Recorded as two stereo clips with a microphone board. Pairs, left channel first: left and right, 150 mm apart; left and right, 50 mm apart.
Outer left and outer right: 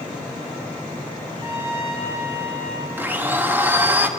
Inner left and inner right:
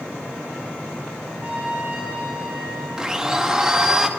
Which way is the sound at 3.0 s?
10° right (ahead or behind).